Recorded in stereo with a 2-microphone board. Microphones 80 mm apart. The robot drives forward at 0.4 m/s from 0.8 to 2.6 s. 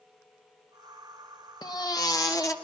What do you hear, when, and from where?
1.6 s a baby crying: 60° left (ahead or behind), 1.2 m; by 2.5 s 45° left (ahead or behind), 1.4 m